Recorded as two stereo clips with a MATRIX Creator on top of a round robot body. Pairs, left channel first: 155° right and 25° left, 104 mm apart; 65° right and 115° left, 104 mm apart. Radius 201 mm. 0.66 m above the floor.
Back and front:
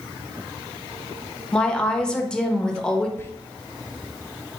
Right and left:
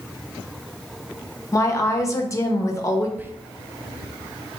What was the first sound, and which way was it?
A woman speaking, 80° right.